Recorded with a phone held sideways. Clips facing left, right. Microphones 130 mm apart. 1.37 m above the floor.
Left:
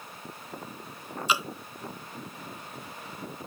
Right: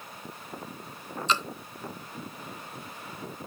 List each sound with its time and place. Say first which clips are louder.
1.3 s dripping: even; 10° left (ahead or behind)